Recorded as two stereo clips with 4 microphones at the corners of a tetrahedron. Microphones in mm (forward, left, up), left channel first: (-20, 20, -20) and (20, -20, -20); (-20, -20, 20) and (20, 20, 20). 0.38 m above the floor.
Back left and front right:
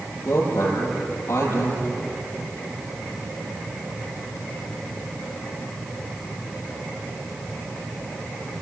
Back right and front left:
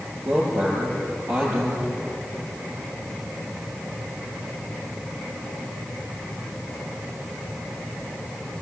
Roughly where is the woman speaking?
Left.